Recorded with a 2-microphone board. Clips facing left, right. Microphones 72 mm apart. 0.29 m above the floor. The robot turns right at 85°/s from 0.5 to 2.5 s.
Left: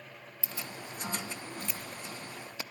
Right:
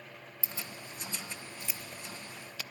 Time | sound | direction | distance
0.4 | keys jangling | 30° right (ahead or behind) | 0.7 m